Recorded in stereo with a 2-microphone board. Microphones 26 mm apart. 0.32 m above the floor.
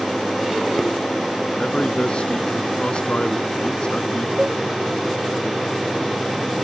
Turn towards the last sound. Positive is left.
turn(degrees=-45)  # may be behind; listen again after turning